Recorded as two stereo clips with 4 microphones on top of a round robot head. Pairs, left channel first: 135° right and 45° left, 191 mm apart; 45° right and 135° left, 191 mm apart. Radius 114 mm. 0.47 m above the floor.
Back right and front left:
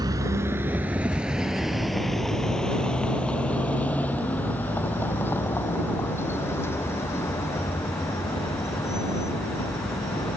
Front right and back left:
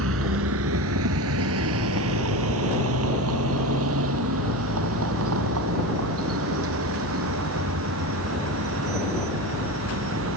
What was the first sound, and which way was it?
A vehicle, 120° left.